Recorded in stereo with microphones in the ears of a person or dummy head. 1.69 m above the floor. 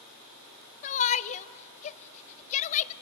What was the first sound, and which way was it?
A shout, 30° left (ahead or behind).